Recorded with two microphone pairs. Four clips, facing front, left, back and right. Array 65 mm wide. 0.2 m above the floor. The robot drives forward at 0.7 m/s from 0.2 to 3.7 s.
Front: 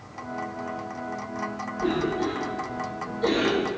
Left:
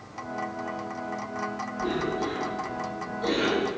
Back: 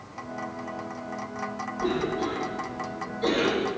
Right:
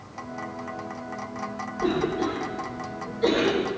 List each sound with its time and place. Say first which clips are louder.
1.8 s a cough: right 4 dB, front 2 dB; 105° right, 8.5 m; by 3.7 s 115° right, 9 m